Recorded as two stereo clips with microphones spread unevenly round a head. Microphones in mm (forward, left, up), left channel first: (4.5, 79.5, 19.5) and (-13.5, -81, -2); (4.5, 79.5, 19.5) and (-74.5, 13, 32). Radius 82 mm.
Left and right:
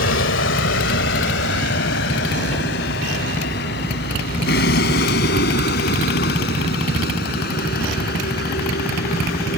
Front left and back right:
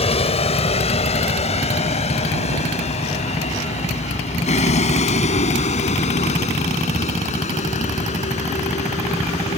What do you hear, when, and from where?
0.0 s a vehicle: 65° left; by 9.6 s 50° left